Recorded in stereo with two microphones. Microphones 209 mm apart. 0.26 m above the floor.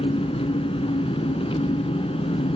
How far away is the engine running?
About 1.9 m.